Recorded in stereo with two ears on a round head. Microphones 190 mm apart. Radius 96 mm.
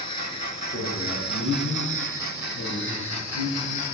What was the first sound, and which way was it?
A man speaking, 70° left (ahead or behind).